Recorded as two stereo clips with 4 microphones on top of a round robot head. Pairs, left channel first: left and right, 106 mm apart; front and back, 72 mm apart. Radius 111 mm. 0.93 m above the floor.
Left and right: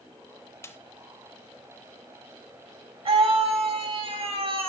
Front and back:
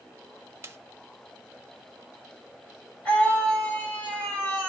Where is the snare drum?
140° left, 1.0 m.